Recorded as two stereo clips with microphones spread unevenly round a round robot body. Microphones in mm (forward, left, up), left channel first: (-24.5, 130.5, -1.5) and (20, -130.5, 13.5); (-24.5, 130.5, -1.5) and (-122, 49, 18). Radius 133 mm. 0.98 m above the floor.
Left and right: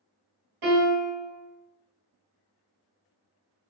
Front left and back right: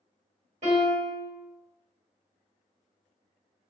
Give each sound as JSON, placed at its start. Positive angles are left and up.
{"t": 0.6, "sound": "a piano", "azimuth_deg": -85, "distance_m": 1.8}